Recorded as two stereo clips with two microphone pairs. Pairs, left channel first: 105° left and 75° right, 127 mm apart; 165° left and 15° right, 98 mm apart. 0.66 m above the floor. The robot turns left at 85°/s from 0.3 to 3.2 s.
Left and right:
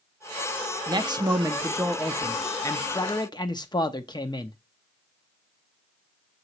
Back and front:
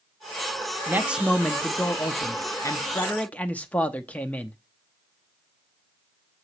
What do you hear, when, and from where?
0.9 s a man speaking: 60° right, 0.8 m; by 4.6 s 100° left, 0.8 m